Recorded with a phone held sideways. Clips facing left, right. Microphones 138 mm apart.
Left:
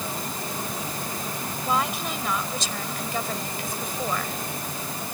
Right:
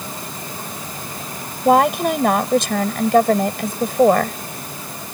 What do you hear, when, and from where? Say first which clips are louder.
1.6 s a woman speaking: right 13 dB; 60° right (ahead or behind)